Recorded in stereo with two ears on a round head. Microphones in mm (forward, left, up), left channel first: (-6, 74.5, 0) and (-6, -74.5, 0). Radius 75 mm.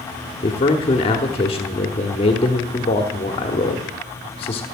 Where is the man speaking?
35° left (ahead or behind), 1.2 m.